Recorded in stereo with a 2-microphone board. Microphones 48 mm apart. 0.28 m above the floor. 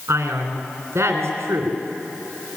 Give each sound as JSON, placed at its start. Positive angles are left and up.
{"t": 0.1, "sound": "a man speaking", "side_deg": -70, "distance_m": 3.0}